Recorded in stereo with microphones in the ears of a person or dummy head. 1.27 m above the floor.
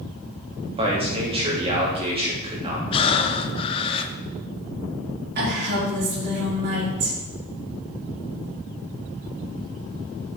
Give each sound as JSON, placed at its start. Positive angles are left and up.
{"t": 0.8, "sound": "a man speaking", "side_deg": -30, "distance_m": 3.0}
{"t": 2.9, "sound": "breathing", "side_deg": 30, "distance_m": 0.9}
{"t": 5.3, "sound": "a woman speaking", "side_deg": -50, "distance_m": 3.5}